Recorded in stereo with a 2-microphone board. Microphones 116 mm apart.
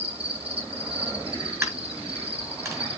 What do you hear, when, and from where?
0.0 s an insect: 55° right (ahead or behind), 5.5 m
1.6 s a dropped coin: 25° right (ahead or behind), 6.5 m